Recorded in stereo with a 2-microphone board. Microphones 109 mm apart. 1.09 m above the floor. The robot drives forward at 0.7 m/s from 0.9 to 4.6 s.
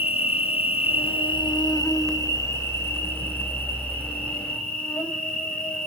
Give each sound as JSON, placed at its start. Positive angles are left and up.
{"t": 0.0, "sound": "an insect", "side_deg": 65, "distance_m": 0.8}